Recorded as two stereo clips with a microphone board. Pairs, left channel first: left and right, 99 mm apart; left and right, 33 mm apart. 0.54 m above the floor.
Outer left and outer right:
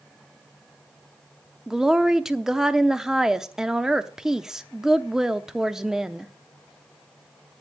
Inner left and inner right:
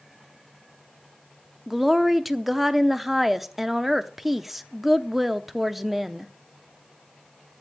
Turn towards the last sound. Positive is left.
turn(degrees=-5)  # may be behind; listen again after turning